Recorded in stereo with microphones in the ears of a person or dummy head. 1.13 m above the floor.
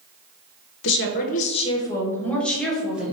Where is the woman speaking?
65° left (ahead or behind), 0.6 m; by 3.1 s 5° right (ahead or behind), 1.3 m.